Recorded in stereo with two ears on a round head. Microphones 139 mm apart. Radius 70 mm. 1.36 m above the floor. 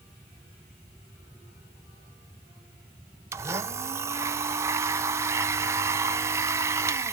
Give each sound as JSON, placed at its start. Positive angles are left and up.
{"t": 3.3, "sound": "a blender", "side_deg": -20, "distance_m": 0.6}